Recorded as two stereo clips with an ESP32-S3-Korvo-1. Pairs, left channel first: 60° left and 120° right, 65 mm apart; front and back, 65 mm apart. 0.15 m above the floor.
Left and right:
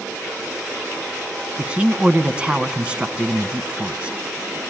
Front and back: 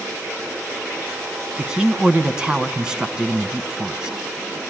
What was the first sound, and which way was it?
A man speaking, 135° right.